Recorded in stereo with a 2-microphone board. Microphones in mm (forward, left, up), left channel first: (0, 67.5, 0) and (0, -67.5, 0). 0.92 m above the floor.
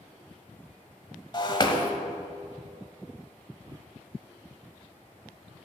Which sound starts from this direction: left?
Breaking glass, at 1.3 s.